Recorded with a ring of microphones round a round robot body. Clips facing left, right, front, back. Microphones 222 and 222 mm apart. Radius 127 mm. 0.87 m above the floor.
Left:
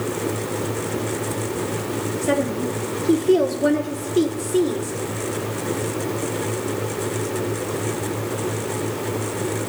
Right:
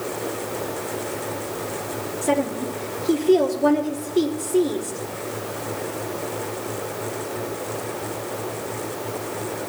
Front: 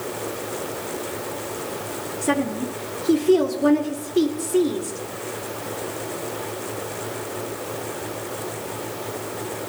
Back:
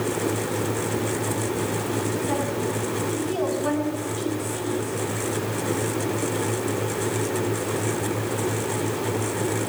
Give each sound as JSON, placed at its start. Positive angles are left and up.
{"t": 2.2, "sound": "a woman speaking", "azimuth_deg": 10, "distance_m": 2.0}